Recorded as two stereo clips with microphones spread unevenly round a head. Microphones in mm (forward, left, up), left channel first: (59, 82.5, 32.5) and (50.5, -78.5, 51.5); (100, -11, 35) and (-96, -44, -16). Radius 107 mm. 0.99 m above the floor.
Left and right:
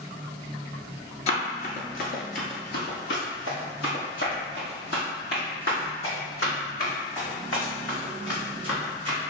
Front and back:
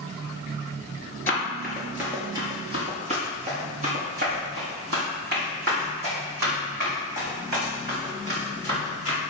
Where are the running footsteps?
50° left, 1.1 m; by 9.2 s 140° left, 5 m.